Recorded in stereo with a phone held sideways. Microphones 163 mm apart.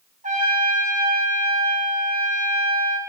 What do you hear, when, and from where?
0.2 s a trumpet: 50° right (ahead or behind), 1.3 m